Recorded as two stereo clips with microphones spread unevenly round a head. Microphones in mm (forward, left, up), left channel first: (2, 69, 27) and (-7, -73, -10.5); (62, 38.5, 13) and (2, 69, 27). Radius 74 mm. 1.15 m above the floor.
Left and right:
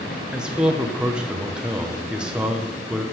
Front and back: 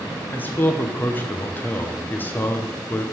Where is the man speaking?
35° right, 0.8 m.